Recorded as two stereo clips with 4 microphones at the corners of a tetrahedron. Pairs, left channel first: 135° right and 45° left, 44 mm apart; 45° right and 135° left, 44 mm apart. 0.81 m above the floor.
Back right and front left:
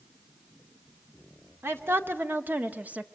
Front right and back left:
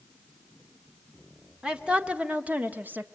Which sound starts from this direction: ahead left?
A woman speaking, at 1.6 s.